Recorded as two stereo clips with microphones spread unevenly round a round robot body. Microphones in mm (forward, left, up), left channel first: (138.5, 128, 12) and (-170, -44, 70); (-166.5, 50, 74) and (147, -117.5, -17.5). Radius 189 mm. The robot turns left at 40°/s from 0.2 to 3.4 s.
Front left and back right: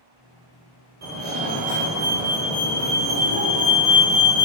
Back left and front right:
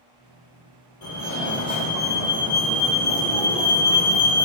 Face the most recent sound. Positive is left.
turn(degrees=70)